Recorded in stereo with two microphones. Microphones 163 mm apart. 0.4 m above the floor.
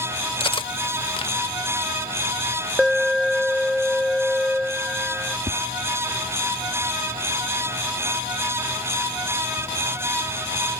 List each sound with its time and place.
0.4 s cutlery clinking: 35° left (ahead or behind)
2.8 s an alarm: centre (ahead or behind)
5.5 s tapping: 55° right (ahead or behind)